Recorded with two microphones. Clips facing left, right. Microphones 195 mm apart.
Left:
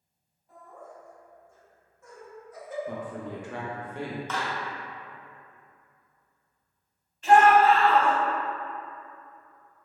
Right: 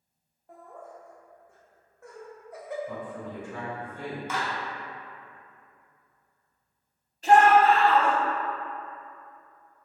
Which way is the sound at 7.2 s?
35° right (ahead or behind).